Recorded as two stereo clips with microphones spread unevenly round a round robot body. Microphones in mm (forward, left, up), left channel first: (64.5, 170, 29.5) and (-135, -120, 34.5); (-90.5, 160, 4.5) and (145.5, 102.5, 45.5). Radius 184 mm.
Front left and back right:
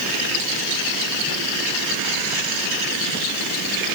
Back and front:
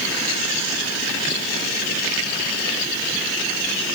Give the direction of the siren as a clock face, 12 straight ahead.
No siren in this recording.